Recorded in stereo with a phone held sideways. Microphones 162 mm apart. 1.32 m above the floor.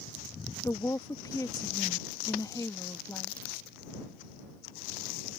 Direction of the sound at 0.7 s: 20° left (ahead or behind).